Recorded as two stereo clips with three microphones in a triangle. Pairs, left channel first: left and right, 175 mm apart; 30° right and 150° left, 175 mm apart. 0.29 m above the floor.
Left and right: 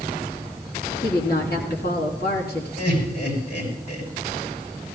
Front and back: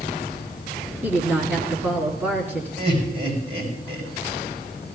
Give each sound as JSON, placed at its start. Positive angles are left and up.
{"t": 1.0, "sound": "a woman speaking", "azimuth_deg": 70, "distance_m": 3.5}
{"t": 2.8, "sound": "laughter", "azimuth_deg": 95, "distance_m": 5.5}